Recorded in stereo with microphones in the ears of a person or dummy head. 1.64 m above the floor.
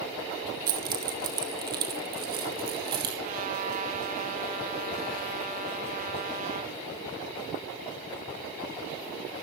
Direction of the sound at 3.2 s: 45° right (ahead or behind).